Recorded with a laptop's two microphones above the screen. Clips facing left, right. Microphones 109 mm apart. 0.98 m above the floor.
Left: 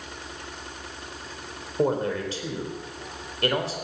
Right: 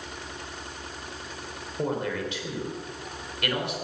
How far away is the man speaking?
About 3.5 m.